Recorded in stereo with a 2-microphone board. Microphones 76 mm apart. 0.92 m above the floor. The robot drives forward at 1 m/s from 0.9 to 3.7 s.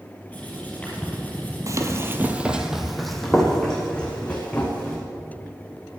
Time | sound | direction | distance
0.3 | writing | 20° left (ahead or behind) | 6 m
1.7 | running footsteps | 45° right (ahead or behind) | 1.2 m